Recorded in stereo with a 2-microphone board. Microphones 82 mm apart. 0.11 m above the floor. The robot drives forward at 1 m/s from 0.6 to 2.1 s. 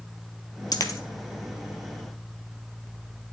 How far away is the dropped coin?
About 0.7 m.